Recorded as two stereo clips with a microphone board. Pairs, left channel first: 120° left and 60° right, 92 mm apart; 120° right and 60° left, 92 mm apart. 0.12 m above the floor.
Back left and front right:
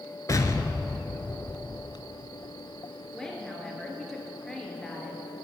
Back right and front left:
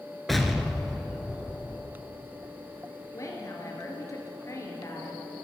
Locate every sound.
0.3 s an explosion: 150° left, 0.8 m
3.1 s a woman speaking: 160° right, 2 m